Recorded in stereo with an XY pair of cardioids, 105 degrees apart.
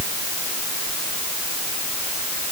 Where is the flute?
No flute in this recording.